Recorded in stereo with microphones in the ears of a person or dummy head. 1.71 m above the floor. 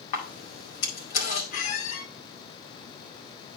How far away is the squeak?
About 1.3 m.